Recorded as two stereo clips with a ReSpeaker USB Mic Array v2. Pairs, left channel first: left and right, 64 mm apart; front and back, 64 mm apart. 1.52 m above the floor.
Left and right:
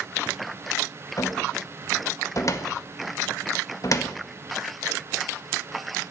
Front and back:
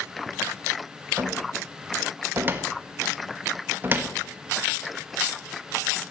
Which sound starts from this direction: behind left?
A cupboard door, at 1.2 s.